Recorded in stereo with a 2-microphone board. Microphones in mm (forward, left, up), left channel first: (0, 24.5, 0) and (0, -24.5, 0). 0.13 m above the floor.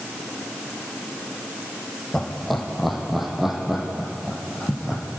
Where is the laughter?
5° left (ahead or behind), 5 m; by 5.0 s 15° right (ahead or behind), 7 m.